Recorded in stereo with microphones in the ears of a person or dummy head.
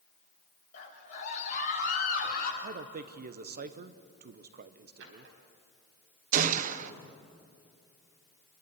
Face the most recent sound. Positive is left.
turn(degrees=-45)  # may be behind; listen again after turning